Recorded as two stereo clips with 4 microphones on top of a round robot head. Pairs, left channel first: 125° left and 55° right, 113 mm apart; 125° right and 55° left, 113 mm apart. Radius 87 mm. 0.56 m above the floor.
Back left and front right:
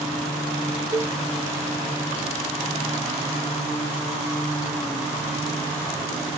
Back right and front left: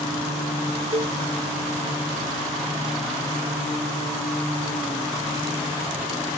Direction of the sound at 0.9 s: 10° left.